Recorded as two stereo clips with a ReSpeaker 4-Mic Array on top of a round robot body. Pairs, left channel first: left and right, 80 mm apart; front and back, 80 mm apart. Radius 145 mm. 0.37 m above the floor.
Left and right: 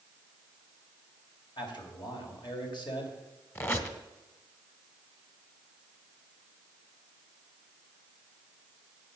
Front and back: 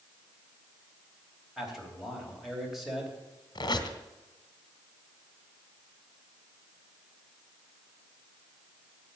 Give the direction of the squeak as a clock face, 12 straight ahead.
11 o'clock.